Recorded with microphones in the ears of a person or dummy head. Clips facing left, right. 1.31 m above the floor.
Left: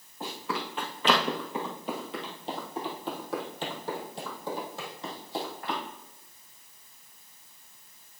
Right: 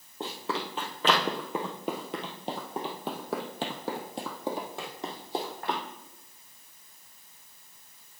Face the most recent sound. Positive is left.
turn(degrees=-50)  # may be behind; listen again after turning